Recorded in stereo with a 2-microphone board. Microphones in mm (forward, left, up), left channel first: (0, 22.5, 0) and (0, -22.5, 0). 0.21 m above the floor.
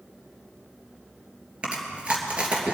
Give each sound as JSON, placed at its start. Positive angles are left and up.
{"t": 1.6, "sound": "chewing", "side_deg": -30, "distance_m": 3.0}